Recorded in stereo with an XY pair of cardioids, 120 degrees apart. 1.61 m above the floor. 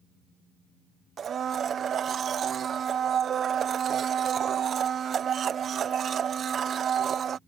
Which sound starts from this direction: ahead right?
A blender, at 1.2 s.